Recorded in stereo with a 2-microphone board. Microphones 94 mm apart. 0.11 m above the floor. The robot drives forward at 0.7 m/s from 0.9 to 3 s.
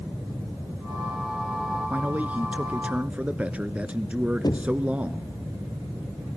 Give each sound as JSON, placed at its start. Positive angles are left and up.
{"t": 1.9, "sound": "a man speaking", "side_deg": -15, "distance_m": 1.1}
{"t": 4.4, "sound": "knocking", "side_deg": 45, "distance_m": 2.0}